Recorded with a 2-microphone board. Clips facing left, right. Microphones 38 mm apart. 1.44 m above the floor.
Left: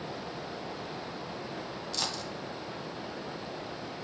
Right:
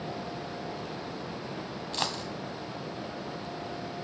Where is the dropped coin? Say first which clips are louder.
Right 4 dB; 35° right (ahead or behind), 1.8 m.